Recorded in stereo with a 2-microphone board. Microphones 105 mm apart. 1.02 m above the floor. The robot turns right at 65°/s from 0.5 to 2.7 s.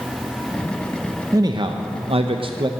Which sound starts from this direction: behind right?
A man speaking, at 1.3 s.